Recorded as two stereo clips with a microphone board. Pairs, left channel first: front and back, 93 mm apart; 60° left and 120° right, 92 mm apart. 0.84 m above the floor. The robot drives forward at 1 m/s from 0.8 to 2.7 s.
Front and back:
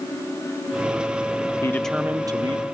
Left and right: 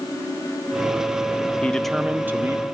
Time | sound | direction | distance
1.6 | a man speaking | straight ahead | 0.6 m